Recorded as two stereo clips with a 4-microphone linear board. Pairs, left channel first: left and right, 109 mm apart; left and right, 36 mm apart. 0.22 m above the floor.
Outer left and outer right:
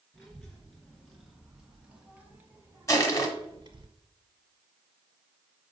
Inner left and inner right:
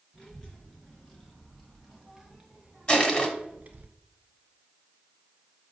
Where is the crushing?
30° left (ahead or behind), 1.3 m.